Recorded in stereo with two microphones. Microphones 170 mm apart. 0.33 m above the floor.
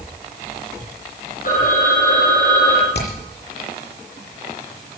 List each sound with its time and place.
1.4 s a phone ringing: 55° left (ahead or behind), 8 m
2.9 s hammering: 80° left, 7 m